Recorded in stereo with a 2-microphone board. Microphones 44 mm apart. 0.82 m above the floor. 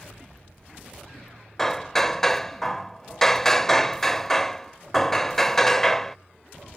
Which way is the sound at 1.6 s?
10° left (ahead or behind).